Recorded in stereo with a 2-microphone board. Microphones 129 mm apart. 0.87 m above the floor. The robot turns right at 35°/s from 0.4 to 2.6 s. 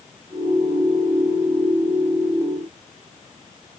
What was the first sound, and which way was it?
Only background noise.